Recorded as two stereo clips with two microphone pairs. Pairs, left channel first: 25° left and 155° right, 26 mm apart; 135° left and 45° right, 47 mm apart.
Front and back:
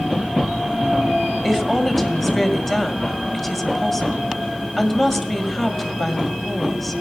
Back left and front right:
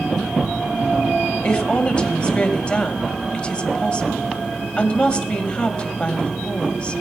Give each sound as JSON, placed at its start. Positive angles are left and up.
{"t": 1.4, "sound": "a woman speaking", "azimuth_deg": 105, "distance_m": 1.6}